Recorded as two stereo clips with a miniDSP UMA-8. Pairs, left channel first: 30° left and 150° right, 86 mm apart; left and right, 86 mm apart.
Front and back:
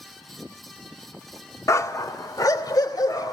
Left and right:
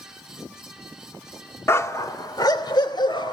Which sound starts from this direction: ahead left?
A dog barking, at 1.7 s.